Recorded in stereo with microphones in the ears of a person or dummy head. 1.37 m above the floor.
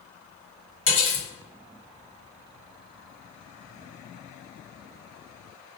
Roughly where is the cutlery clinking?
Left.